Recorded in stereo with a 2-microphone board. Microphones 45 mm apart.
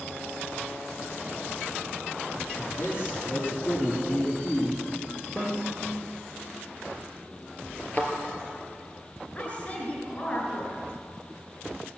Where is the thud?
35° left (ahead or behind), 3 m.